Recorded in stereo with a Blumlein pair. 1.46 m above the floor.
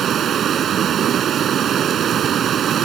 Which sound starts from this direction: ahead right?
Running water, at 0.0 s.